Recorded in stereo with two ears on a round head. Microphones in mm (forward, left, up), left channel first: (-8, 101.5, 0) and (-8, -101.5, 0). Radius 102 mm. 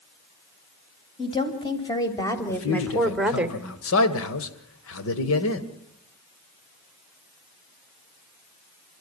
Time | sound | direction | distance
1.2 | a woman speaking | 25° left (ahead or behind) | 4 m
2.5 | a man speaking | 65° left (ahead or behind) | 2 m